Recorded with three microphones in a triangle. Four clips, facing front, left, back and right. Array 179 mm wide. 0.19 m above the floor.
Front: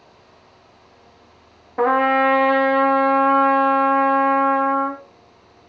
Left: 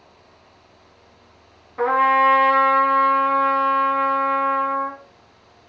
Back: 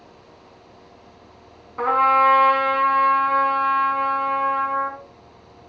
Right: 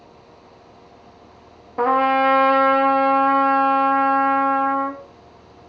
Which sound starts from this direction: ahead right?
A trumpet, at 1.8 s.